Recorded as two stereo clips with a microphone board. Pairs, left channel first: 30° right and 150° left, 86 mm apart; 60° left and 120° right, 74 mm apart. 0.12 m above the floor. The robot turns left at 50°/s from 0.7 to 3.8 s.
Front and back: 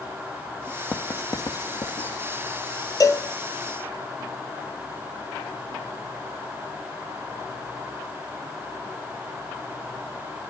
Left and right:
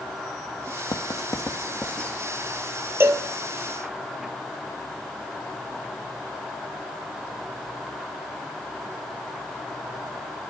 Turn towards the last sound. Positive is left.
turn(degrees=-110)